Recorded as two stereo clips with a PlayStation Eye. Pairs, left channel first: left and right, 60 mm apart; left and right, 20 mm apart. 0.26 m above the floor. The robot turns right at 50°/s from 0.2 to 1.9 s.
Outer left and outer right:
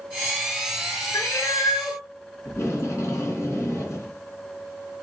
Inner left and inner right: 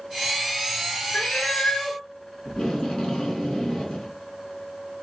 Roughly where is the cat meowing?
Ahead left.